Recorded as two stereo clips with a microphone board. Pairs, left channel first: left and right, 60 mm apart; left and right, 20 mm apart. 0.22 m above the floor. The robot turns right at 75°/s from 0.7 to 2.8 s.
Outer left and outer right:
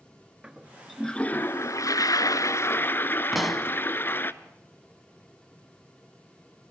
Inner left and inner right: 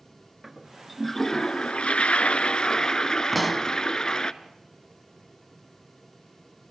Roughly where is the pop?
Centre.